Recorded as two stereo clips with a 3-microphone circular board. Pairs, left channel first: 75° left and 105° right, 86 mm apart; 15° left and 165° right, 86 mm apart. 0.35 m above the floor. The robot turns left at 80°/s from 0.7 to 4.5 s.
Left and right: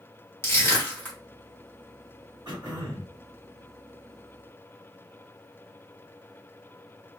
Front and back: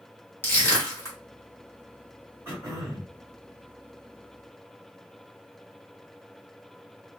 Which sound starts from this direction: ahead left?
Crushing, at 0.4 s.